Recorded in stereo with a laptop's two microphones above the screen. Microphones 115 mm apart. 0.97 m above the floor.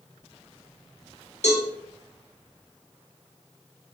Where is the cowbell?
75° left (ahead or behind), 3 m.